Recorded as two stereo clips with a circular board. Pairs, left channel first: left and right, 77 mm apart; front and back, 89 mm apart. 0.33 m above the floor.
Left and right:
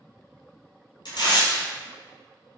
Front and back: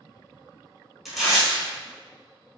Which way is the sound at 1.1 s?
90° left.